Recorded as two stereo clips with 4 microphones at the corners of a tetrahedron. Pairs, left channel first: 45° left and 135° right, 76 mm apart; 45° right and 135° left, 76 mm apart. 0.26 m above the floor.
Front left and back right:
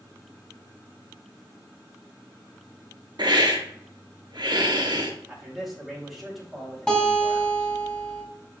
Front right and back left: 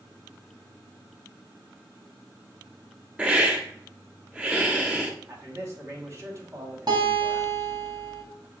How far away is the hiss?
About 1.1 m.